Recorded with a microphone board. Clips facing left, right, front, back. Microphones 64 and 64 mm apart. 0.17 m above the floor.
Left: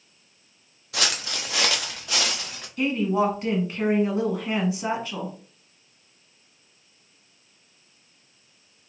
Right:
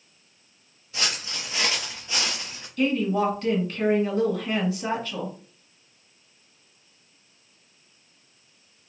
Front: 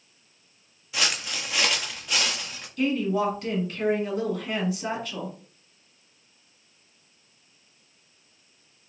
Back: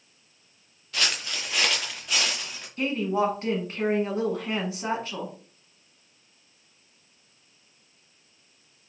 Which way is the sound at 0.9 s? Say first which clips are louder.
Left 3 dB, front 1 dB; 80° left.